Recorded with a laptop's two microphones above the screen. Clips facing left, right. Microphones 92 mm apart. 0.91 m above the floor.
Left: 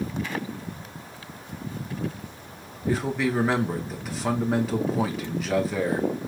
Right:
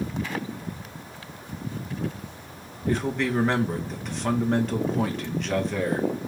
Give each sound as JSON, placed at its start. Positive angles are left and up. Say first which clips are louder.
{"t": 2.9, "sound": "a man speaking", "louder": "even", "side_deg": 5, "distance_m": 0.8}